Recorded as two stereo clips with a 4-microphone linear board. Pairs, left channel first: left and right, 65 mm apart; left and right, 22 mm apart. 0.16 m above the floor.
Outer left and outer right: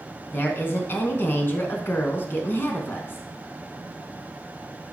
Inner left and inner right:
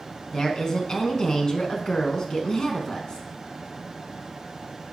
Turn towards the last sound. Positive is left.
turn(degrees=35)  # may be behind; listen again after turning